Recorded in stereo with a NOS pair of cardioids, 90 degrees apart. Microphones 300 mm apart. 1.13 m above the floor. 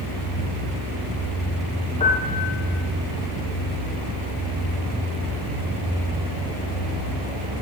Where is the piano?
20° left, 7 m.